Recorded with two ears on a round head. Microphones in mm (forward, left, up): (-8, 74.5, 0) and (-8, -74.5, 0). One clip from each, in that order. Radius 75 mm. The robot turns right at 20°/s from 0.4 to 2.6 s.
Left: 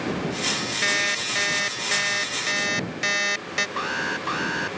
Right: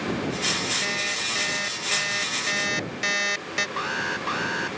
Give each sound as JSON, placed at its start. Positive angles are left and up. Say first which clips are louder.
{"t": 0.8, "sound": "an alarm clock", "louder": "left 3 dB", "azimuth_deg": 145}
{"t": 3.8, "sound": "an alarm", "louder": "left 1 dB", "side_deg": -5}